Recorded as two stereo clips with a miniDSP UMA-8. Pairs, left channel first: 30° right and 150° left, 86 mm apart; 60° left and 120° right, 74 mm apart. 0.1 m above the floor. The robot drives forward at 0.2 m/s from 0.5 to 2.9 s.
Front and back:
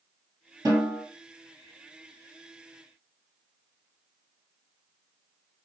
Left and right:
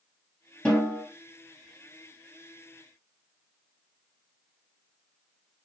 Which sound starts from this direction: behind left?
A snare drum, at 0.7 s.